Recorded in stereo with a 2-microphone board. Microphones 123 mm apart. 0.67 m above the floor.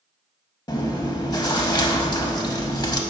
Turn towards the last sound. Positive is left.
turn(degrees=30)  # may be behind; listen again after turning